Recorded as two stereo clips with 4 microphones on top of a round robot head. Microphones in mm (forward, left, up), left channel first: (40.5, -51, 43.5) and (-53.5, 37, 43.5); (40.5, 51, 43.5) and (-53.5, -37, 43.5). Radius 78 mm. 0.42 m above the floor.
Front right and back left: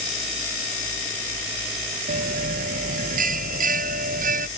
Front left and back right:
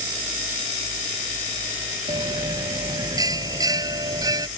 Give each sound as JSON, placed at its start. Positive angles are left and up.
{"t": 2.1, "sound": "a bell", "azimuth_deg": 160}